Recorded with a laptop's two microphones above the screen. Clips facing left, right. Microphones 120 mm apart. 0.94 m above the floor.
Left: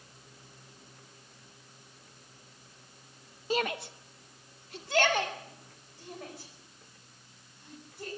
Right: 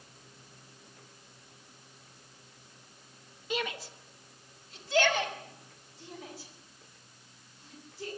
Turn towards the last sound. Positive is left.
turn(degrees=60)  # may be behind; listen again after turning